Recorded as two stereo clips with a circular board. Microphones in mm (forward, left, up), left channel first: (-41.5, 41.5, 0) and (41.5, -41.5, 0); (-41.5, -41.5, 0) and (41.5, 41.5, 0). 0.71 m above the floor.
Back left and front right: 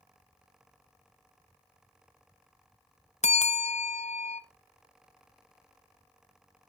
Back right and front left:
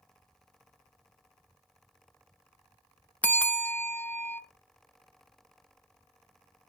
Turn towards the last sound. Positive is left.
turn(degrees=150)